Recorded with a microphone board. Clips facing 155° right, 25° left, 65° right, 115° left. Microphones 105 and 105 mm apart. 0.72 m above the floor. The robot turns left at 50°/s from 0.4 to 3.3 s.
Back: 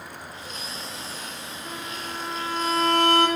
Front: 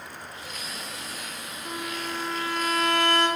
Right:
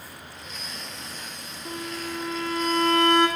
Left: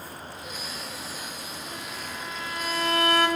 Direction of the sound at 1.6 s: 55° right.